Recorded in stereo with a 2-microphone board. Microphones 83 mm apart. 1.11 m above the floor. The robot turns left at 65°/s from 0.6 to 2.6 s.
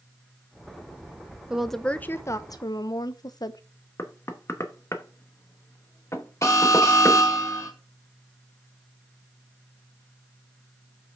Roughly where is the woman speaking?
Behind.